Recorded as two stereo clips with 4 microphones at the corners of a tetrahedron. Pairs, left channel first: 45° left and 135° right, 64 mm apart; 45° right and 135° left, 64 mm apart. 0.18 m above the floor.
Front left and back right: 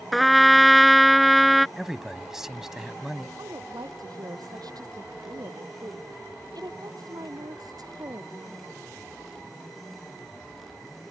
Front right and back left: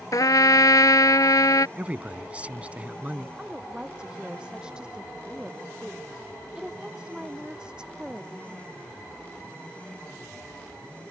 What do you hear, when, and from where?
0.1 s a trumpet: 45° right
1.8 s a man speaking: 155° left
3.4 s a woman speaking: 150° right